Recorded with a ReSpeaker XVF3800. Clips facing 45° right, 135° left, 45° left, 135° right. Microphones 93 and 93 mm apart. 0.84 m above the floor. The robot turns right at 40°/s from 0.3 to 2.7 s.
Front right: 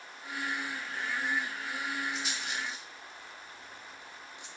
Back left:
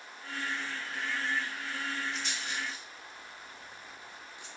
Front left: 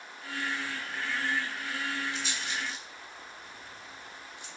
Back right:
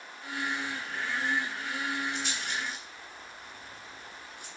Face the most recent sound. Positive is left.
turn(degrees=-110)